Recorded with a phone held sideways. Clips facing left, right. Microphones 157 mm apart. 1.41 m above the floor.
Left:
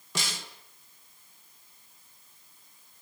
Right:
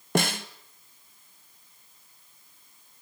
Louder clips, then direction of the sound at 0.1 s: Right 12 dB; 60° right (ahead or behind).